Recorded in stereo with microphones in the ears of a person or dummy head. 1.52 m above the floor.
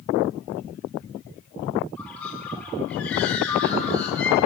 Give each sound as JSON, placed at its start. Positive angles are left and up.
{"t": 2.0, "sound": "a bird", "side_deg": 5, "distance_m": 3.5}